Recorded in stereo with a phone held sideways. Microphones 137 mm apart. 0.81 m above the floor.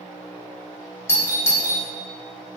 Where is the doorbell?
20° left (ahead or behind), 1.3 m.